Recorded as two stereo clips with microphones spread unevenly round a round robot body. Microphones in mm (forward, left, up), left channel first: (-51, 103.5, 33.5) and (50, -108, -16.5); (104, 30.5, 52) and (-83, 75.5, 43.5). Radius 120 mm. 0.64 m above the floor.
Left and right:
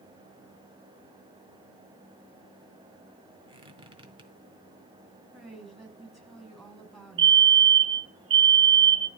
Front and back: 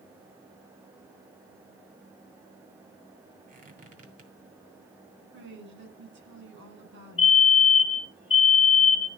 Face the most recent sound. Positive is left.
turn(degrees=-75)